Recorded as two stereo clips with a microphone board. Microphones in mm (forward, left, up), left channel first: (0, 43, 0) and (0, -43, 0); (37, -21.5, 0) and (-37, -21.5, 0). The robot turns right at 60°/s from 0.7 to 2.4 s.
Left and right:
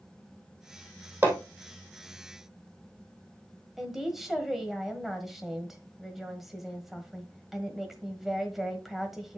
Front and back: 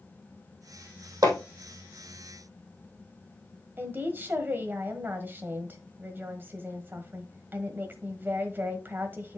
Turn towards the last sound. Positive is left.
turn(degrees=-175)